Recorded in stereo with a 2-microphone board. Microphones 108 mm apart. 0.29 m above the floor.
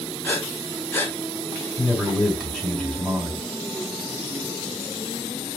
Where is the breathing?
20° left (ahead or behind), 1.2 m.